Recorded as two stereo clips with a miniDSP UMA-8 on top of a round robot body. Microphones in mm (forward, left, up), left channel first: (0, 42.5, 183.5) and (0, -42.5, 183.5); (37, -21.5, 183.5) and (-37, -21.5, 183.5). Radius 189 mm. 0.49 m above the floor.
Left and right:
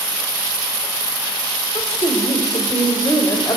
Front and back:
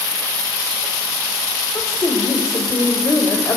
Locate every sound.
1.8 s a woman speaking: 50° left, 3 m